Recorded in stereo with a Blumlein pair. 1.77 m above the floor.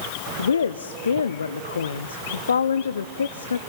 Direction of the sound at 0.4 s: 70° left.